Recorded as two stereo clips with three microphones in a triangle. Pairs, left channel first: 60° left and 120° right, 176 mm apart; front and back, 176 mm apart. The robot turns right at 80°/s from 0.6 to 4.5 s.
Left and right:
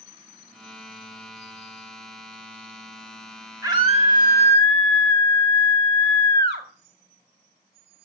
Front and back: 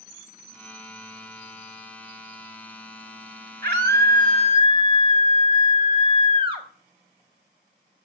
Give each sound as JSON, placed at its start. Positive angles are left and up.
{"t": 3.6, "sound": "a scream", "azimuth_deg": 165, "distance_m": 5.0}